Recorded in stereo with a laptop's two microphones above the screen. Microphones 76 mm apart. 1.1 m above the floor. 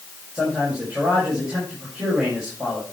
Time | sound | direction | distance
0.3 | a man speaking | 15° right (ahead or behind) | 5.5 m